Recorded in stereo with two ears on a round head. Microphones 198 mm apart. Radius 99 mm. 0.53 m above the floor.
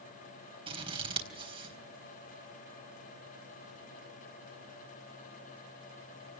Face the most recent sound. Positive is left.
turn(degrees=-25)  # may be behind; listen again after turning